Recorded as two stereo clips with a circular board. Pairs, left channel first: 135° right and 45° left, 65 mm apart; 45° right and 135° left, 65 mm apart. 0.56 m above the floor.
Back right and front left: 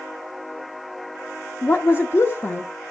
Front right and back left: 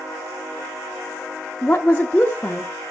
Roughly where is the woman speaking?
Right.